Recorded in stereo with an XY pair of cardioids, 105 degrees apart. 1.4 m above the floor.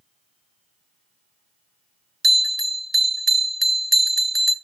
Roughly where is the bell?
Ahead.